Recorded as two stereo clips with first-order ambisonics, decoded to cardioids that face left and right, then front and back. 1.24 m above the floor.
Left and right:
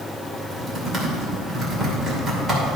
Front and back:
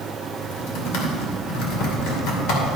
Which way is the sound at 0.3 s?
10° right.